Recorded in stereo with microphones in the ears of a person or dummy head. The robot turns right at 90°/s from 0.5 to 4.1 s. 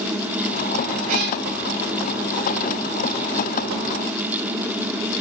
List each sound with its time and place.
1.1 s a cat meowing: 35° right (ahead or behind), 1.2 m; by 1.4 s 50° right (ahead or behind), 1.2 m